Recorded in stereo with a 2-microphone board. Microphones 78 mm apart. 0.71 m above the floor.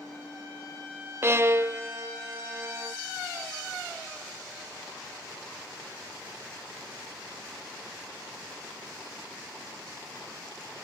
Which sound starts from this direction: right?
A violin, at 1.2 s.